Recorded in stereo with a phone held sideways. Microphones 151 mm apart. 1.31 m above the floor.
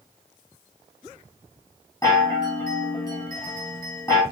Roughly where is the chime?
Left.